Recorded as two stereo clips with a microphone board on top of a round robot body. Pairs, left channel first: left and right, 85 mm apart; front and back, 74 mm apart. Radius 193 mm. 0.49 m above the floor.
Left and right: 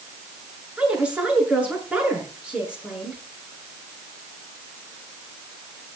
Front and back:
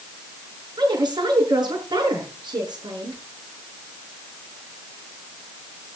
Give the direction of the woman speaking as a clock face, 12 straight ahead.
6 o'clock.